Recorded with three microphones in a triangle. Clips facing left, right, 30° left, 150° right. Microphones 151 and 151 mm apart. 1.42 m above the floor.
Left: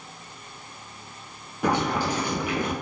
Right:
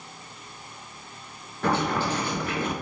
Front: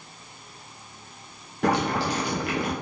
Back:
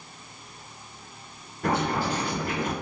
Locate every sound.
1.6 s boiling: 15° left, 0.6 m